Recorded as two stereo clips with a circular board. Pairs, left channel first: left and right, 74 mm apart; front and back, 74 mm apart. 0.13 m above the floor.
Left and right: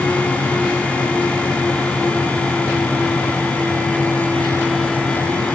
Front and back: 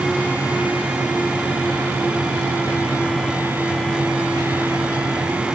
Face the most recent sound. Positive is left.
No sound to turn to.